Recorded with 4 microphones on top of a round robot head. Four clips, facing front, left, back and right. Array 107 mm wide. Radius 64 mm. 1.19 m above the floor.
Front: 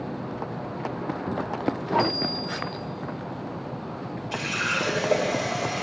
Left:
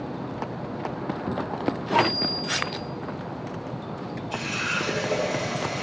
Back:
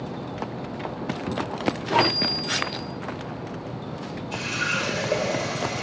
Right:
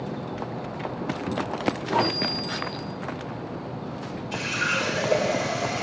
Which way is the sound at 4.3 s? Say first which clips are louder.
Right 3 dB, even; 10° right.